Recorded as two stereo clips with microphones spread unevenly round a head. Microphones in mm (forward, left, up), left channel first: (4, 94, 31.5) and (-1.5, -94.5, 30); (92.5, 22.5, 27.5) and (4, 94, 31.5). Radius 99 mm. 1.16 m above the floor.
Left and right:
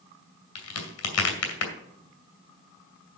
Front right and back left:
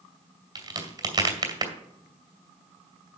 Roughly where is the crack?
Left.